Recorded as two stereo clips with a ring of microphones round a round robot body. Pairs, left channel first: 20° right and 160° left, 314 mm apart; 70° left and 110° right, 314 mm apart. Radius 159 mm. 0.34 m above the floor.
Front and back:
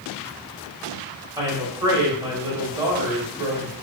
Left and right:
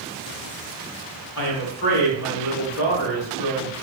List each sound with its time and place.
1.4 s a woman speaking: 85° left, 1.3 m